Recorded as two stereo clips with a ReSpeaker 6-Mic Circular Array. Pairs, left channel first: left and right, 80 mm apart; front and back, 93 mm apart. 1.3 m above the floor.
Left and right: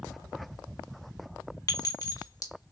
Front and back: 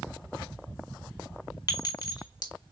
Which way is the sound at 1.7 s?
45° left.